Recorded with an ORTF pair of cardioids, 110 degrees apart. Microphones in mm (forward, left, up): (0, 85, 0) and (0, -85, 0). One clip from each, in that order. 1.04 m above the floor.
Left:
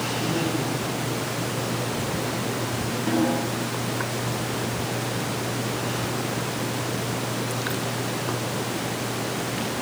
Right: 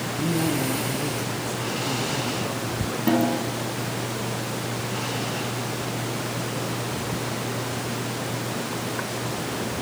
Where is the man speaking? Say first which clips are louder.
Even; 60° right, 10 m.